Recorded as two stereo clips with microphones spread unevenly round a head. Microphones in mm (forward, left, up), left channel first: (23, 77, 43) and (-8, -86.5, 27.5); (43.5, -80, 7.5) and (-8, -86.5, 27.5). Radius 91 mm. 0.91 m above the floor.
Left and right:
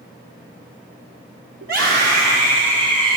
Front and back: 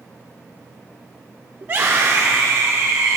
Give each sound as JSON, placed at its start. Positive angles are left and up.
{"t": 1.6, "sound": "a scream", "azimuth_deg": -125, "distance_m": 1.9}